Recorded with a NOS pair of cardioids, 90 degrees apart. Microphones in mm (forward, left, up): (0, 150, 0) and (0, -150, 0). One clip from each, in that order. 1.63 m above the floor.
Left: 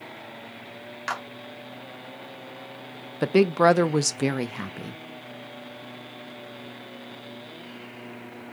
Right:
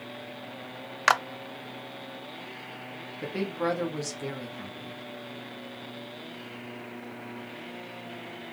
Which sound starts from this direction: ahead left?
A woman speaking, at 3.2 s.